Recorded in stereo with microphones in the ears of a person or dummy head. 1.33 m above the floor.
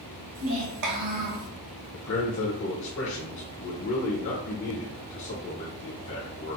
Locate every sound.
0.3 s a child speaking: 75° right (ahead or behind), 1.4 m; by 1.5 s 50° right (ahead or behind), 1.0 m
1.9 s a man speaking: 70° left (ahead or behind), 0.9 m